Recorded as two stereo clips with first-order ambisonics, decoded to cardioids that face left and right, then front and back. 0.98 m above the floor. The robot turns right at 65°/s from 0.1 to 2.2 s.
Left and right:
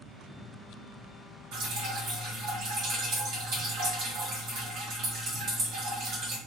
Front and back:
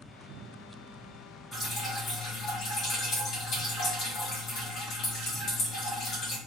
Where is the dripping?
90° right, 1.4 m; by 6.4 s 45° right, 1.4 m.